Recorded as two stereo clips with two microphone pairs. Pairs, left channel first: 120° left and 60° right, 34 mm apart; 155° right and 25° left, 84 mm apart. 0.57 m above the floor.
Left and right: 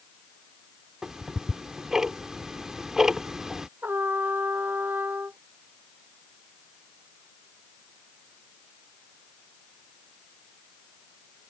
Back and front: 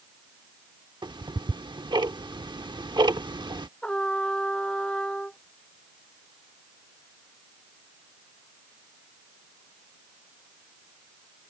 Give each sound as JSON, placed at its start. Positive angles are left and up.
{"t": 1.0, "sound": "ticking", "azimuth_deg": 15}
{"t": 3.8, "sound": "a trumpet", "azimuth_deg": -75}